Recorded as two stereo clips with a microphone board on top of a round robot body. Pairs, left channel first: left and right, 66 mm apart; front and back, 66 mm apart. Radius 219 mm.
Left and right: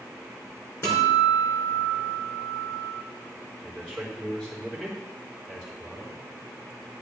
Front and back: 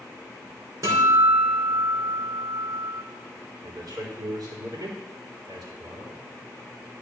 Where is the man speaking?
170° left, 4 m.